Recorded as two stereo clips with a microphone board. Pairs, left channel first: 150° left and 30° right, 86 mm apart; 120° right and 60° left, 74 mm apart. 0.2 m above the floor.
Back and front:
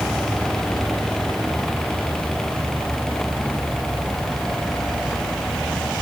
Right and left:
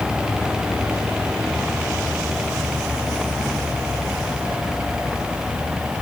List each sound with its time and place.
Only background noise.